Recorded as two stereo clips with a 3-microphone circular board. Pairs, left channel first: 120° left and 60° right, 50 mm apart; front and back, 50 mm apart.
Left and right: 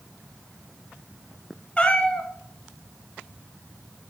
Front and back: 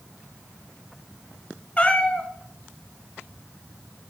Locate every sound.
1.8 s a cat meowing: 55° left, 1.1 m